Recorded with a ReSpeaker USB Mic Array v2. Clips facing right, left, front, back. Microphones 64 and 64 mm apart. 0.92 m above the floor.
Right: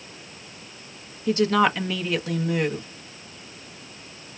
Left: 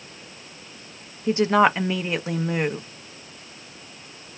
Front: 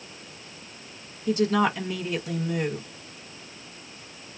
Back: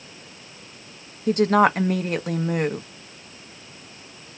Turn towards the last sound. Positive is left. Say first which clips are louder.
# left 2 dB, back 5 dB
turn(degrees=155)